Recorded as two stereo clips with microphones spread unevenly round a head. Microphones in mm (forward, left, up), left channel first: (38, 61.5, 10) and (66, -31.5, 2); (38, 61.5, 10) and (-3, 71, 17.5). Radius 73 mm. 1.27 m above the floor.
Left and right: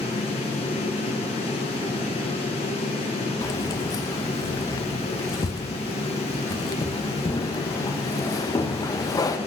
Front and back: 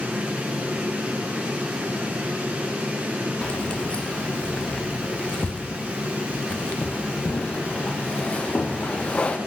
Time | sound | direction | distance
0.0 | a fan | 110° left | 1.8 m
3.4 | keys jangling | 55° left | 0.7 m